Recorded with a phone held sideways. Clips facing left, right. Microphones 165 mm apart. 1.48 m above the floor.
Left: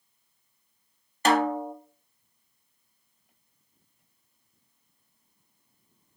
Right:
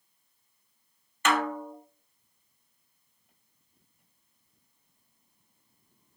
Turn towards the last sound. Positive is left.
turn(degrees=35)  # may be behind; listen again after turning